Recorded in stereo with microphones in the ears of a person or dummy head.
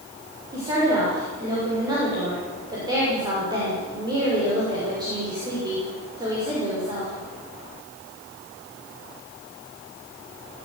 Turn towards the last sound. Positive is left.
turn(degrees=-25)  # may be behind; listen again after turning